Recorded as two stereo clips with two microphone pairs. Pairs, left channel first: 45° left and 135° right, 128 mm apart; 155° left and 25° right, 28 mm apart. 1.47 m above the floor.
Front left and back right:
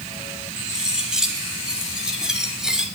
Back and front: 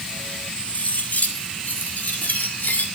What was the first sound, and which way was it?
Cutlery clinking, 140° left.